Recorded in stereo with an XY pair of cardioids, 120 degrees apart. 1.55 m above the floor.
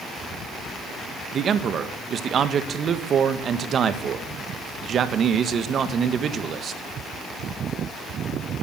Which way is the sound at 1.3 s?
45° right.